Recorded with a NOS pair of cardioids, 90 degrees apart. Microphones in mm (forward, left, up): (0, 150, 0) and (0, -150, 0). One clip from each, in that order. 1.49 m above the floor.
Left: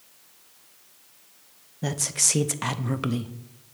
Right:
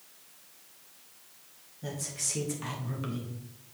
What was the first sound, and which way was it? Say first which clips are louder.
A woman speaking: left 10 dB; 60° left.